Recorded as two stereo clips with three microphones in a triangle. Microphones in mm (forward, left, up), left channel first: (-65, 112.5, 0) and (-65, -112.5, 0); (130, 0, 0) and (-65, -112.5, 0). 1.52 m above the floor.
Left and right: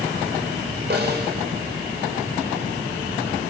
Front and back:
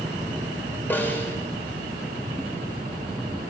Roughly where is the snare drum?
Ahead right.